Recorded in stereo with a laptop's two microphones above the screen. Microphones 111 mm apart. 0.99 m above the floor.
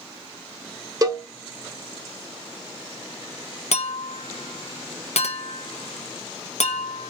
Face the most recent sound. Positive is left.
turn(degrees=80)